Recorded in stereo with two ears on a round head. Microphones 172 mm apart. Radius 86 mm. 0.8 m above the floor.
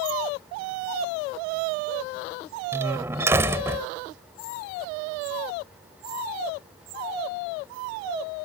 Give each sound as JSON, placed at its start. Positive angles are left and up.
{"t": 2.7, "sound": "a door slam", "side_deg": -15}